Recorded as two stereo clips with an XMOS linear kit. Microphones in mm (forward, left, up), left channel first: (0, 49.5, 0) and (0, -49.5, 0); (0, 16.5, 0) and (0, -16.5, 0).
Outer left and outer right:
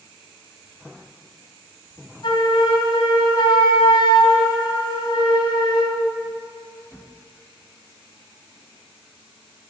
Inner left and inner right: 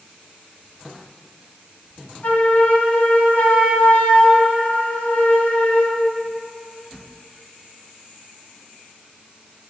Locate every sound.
2.2 s a flute: 50° left (ahead or behind), 2.5 m